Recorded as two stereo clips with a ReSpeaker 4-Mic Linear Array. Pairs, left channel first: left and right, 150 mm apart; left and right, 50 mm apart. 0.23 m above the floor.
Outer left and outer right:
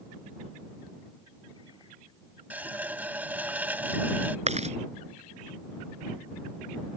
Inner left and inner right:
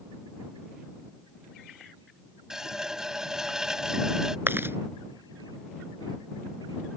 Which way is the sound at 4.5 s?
50° right (ahead or behind).